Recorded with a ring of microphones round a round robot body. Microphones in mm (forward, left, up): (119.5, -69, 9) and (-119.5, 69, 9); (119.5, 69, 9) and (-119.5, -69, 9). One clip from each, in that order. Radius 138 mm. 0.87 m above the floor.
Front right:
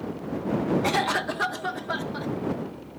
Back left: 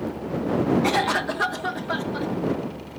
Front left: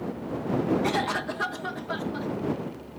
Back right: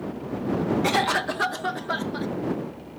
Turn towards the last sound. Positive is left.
turn(degrees=-105)